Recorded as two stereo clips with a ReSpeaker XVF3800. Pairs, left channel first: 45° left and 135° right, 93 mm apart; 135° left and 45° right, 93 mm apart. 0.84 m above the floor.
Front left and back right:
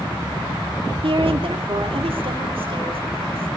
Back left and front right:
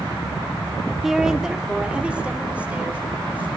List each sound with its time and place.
1.0 s a woman speaking: 130° right, 1.6 m; by 3.5 s 120° right, 3.5 m